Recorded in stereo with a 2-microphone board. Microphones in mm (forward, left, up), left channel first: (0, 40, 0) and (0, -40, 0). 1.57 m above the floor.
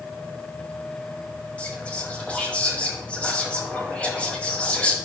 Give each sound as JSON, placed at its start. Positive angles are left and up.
{"t": 1.6, "sound": "whispering", "side_deg": 15, "distance_m": 2.5}